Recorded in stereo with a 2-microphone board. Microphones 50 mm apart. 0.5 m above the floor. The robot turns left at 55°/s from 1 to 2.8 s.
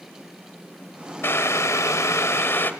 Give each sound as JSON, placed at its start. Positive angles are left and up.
{"t": 1.2, "sound": "boiling", "azimuth_deg": 125, "distance_m": 1.0}